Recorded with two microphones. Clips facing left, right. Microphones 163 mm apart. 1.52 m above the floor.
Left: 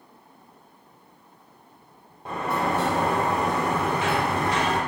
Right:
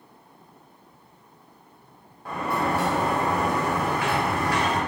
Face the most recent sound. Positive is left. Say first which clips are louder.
# even
turn(degrees=25)  # may be behind; listen again after turning